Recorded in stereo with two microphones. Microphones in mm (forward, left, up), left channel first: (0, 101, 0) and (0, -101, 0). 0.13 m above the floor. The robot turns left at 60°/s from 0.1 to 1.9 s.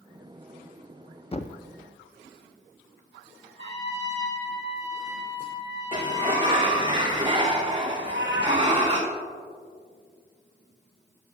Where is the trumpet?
60° right (ahead or behind), 3 m.